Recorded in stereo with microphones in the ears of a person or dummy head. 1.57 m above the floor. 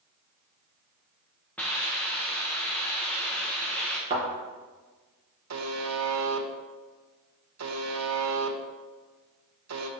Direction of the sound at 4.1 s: 25° right (ahead or behind).